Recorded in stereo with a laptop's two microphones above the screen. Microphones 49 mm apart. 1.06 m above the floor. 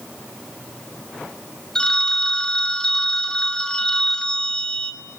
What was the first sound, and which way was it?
A phone ringing, 15° left (ahead or behind).